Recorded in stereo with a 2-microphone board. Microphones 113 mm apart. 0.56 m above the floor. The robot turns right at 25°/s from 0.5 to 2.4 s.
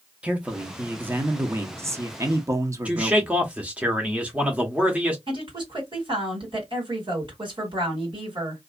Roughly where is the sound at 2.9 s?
Centre.